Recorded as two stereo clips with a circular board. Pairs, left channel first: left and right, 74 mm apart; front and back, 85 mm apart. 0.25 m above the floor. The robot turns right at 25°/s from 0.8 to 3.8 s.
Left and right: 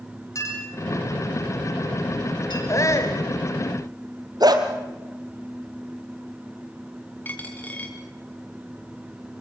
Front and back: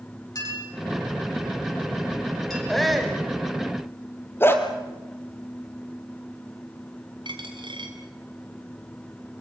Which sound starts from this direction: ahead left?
A clink, at 0.3 s.